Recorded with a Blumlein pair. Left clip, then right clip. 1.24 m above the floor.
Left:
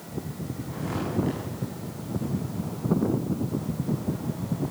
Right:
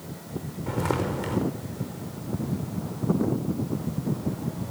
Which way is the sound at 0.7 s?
50° right.